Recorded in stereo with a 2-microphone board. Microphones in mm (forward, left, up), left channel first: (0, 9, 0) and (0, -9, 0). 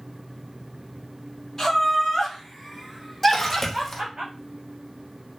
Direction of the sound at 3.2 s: 15° left (ahead or behind).